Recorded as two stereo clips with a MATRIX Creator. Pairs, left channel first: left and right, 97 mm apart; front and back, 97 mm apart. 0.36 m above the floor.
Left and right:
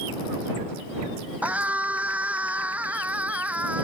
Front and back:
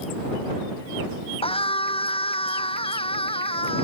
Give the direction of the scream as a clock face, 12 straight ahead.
12 o'clock.